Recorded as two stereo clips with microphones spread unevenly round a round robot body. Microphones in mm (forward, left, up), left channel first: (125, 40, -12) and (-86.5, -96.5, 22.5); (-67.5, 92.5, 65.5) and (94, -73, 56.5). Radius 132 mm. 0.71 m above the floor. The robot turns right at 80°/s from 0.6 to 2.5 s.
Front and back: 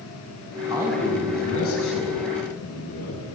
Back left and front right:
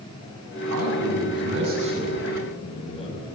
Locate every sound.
0.7 s a man speaking: 75° right, 6 m; by 3.2 s 70° left, 6 m